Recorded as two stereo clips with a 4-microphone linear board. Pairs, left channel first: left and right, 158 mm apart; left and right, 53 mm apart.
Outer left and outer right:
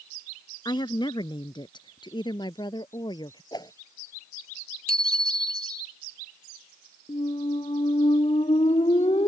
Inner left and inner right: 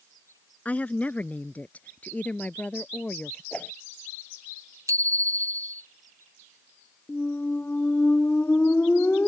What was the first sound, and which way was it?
A woman speaking, 30° left (ahead or behind).